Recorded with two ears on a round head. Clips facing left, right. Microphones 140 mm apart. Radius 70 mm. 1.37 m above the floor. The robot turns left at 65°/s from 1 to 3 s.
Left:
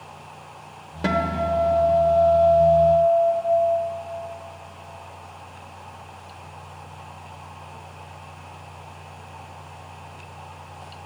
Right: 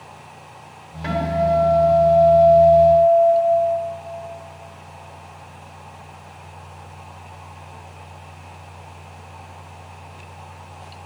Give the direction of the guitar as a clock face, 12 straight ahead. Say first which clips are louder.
Right 3 dB; 9 o'clock.